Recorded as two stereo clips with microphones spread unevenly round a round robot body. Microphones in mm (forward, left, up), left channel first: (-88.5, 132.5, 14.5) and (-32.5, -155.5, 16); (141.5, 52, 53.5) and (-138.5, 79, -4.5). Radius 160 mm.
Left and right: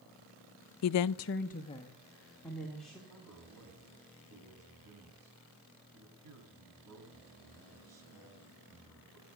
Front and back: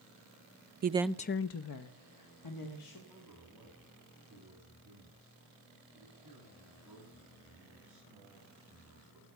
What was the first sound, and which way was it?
A woman speaking, 130° left.